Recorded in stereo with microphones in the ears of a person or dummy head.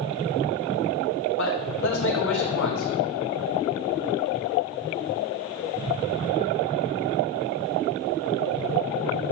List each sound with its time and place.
1.4 s a man speaking: 70° left (ahead or behind), 3 m